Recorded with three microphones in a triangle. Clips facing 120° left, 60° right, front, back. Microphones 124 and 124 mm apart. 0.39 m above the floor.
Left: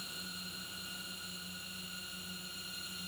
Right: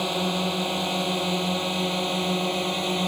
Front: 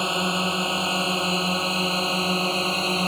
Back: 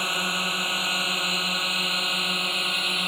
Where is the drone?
65° right; by 3.1 s 55° right.